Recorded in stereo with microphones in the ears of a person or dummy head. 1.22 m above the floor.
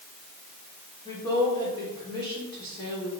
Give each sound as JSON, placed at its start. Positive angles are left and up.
{"t": 1.1, "sound": "a woman speaking", "side_deg": 20, "distance_m": 4.0}